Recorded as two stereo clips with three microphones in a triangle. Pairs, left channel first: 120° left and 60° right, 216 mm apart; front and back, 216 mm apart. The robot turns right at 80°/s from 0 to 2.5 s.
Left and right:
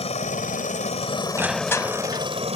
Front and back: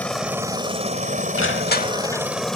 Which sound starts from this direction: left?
A helicopter, at 0.0 s.